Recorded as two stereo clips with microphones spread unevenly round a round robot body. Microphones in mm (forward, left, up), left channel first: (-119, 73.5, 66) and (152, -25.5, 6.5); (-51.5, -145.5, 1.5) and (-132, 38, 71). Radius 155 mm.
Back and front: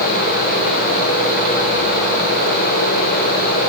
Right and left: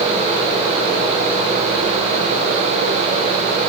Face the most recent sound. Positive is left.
No sound to turn to.